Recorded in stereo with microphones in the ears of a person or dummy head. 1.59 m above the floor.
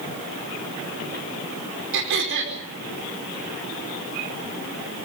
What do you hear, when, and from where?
1.9 s throat clearing: 60° right (ahead or behind), 5 m